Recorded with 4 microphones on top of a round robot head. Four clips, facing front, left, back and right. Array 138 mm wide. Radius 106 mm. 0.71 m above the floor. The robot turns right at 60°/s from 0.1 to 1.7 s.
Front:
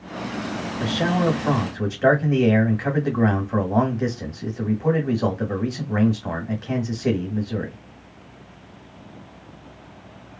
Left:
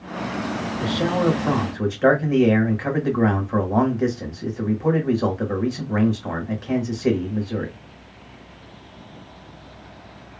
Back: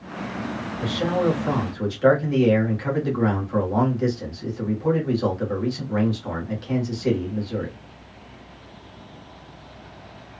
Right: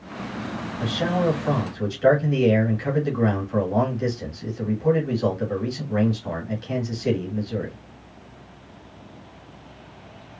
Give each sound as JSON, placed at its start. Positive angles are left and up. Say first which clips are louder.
{"t": 0.8, "sound": "a man speaking", "louder": "left 2 dB, front 1 dB", "azimuth_deg": -5, "distance_m": 1.4}